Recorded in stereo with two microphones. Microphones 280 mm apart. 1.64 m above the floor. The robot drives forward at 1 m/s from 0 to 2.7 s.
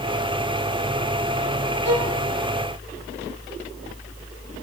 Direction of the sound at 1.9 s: 60° right (ahead or behind).